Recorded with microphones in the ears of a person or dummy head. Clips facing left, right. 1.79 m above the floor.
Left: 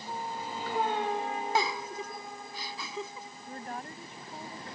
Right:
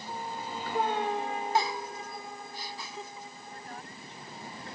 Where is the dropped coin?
No dropped coin in this recording.